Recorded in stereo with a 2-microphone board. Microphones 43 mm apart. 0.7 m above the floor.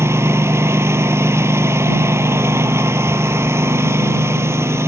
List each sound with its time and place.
0.0 s a lawn mower: 85° right